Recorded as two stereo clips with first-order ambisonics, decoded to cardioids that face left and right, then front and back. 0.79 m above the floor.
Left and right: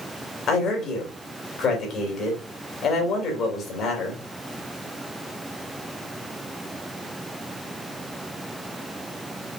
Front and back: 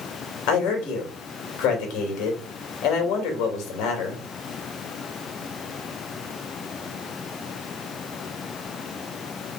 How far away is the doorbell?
I don't hear a doorbell.